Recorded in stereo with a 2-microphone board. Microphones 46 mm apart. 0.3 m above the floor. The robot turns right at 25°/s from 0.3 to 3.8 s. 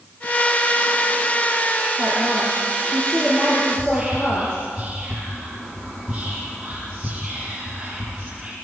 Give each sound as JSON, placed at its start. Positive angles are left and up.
{"t": 2.0, "sound": "a woman speaking", "azimuth_deg": -10, "distance_m": 8.0}
{"t": 3.7, "sound": "whispering", "side_deg": -5, "distance_m": 6.5}